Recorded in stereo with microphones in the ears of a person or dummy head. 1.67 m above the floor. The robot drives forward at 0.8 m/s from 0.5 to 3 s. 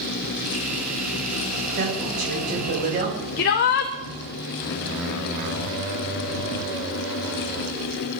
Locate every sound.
1.8 s a woman speaking: 55° right (ahead or behind), 8.5 m; by 3.3 s 50° right (ahead or behind), 9 m
3.4 s a shout: 50° left (ahead or behind), 1.0 m